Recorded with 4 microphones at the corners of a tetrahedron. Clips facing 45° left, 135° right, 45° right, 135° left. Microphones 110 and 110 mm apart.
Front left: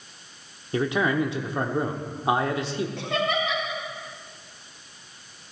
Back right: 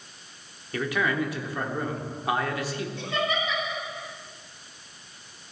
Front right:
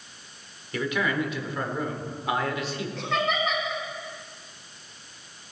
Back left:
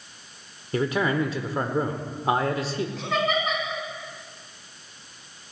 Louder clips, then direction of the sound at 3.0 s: Front left 1 dB, even; 50° left.